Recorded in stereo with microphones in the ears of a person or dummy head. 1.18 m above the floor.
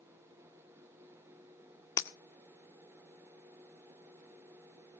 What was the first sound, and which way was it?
Breaking glass, 15° left (ahead or behind).